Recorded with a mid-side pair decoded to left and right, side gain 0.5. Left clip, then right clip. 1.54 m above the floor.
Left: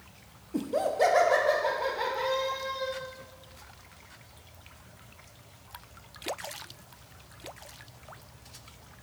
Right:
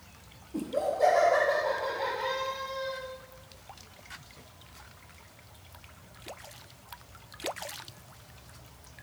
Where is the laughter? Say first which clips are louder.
Left 2 dB; 35° left, 0.9 m; by 3.0 s 80° left, 3 m.